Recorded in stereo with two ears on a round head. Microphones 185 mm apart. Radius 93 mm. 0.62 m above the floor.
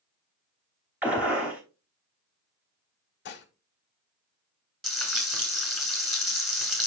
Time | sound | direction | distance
1.0 | a gunshot | 5° right (ahead or behind) | 2.5 m
3.2 | dishes clattering | 55° left (ahead or behind) | 1.1 m
4.8 | frying | centre (ahead or behind) | 2.5 m